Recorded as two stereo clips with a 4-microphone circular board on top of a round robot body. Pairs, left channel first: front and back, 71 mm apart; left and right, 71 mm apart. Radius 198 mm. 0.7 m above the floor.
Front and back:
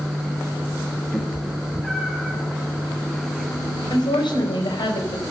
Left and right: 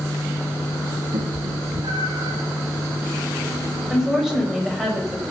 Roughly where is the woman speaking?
Ahead.